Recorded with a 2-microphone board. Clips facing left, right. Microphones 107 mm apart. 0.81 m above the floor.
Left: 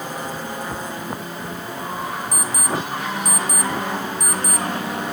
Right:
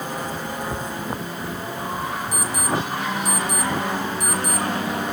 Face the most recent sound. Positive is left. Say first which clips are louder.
# right 2 dB
turn(degrees=-5)  # may be behind; listen again after turning